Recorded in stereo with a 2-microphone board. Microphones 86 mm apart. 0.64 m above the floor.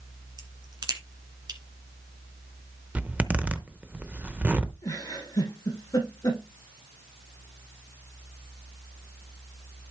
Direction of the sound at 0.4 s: 50° right (ahead or behind).